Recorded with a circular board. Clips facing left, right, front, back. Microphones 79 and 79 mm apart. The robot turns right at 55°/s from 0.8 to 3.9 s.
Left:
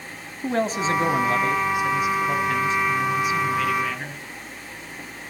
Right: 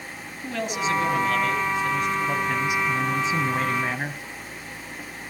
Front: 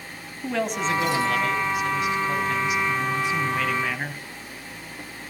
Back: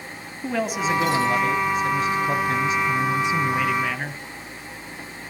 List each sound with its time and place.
0.4 s a man speaking: 100° left, 1.3 m; by 4.2 s 90° right, 1.3 m